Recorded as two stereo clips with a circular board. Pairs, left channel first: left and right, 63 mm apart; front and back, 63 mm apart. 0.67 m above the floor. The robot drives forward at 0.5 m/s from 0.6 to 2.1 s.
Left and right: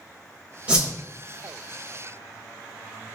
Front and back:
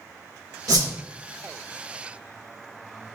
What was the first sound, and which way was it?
A whoosh, 160° right.